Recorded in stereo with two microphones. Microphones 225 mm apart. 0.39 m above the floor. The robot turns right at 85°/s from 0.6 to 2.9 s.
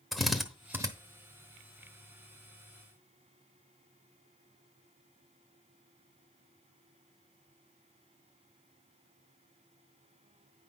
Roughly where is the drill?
Centre.